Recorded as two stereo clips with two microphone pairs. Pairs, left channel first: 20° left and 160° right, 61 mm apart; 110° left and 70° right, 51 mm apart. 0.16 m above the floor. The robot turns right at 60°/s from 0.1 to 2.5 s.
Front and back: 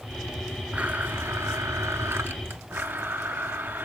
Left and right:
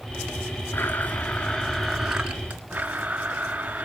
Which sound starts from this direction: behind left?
A blender, at 0.7 s.